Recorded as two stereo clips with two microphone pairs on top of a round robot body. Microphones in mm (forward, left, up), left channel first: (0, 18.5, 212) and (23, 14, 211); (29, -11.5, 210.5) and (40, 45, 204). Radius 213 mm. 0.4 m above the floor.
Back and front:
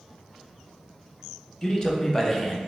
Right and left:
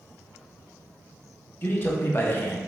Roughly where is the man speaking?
Behind right.